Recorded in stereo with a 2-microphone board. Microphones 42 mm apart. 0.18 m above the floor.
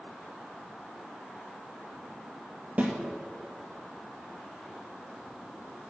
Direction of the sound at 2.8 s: 35° right (ahead or behind).